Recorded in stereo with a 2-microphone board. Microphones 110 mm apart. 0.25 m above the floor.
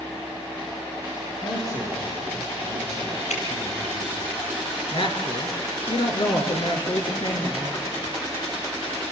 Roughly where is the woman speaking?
Left.